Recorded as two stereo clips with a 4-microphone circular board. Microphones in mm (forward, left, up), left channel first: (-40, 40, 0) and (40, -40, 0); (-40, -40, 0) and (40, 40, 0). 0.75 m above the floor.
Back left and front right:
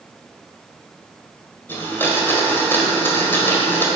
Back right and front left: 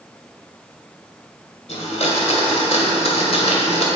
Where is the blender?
155° right, 2.0 m.